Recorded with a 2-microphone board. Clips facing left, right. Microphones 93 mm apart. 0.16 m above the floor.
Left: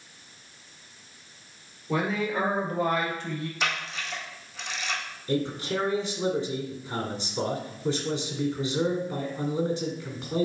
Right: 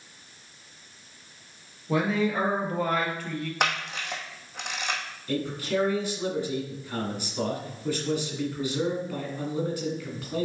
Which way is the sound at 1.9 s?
Centre (ahead or behind).